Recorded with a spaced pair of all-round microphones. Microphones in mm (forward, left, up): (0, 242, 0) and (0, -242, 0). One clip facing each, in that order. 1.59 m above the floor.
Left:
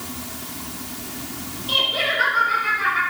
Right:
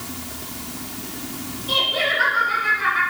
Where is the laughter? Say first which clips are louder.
Right 2 dB; 20° left (ahead or behind), 4.5 m.